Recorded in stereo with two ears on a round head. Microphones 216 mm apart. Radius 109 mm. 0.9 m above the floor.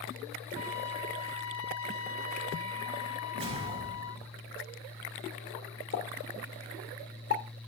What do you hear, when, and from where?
0.6 s a trumpet: 55° left (ahead or behind), 1.3 m
3.3 s a whoosh: 25° right (ahead or behind), 2 m
5.9 s a pop: 45° left (ahead or behind), 2 m